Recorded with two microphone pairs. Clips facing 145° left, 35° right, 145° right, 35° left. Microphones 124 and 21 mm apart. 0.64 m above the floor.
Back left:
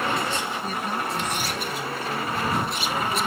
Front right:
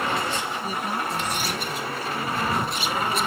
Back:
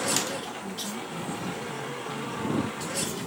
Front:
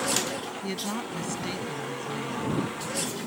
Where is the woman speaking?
45° left.